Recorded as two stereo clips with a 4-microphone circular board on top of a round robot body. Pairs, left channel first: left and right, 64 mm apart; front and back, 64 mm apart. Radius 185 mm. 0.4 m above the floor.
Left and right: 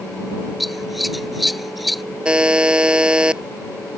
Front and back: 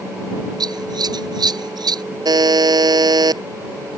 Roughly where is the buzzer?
Behind.